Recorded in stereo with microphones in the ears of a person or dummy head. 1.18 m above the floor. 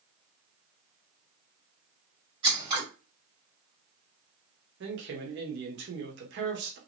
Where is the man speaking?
65° right (ahead or behind), 1.2 m.